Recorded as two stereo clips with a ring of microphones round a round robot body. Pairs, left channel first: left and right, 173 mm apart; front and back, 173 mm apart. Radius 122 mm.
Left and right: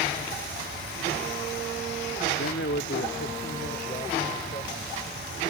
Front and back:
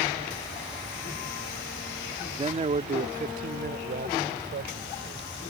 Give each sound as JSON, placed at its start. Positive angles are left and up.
{"t": 2.4, "sound": "a man speaking", "azimuth_deg": 120}